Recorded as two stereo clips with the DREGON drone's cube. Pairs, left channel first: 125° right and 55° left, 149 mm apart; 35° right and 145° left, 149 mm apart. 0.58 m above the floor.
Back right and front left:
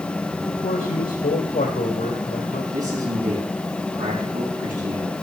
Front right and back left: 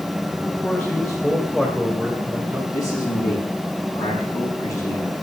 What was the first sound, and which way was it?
A man speaking, 115° right.